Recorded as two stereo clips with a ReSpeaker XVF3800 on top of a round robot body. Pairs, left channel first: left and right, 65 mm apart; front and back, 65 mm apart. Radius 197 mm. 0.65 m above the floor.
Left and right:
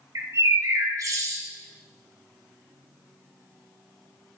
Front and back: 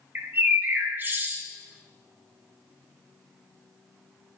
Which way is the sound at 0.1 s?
120° right.